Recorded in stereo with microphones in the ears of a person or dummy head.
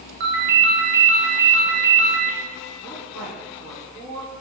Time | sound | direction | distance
0.2 | a ringtone | 60° right (ahead or behind) | 0.6 m
2.8 | a woman speaking | centre (ahead or behind) | 1.7 m